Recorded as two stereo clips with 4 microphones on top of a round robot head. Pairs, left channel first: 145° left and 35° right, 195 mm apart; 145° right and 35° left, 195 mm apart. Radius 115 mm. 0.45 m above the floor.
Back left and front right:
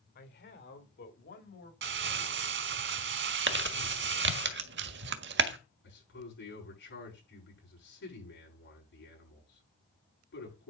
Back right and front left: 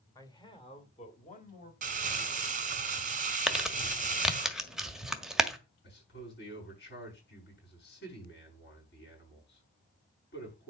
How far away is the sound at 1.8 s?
About 2.0 m.